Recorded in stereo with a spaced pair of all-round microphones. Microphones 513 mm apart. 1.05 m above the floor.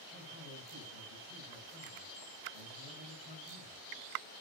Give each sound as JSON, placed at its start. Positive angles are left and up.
{"t": 0.1, "sound": "a man speaking", "side_deg": 80, "distance_m": 5.5}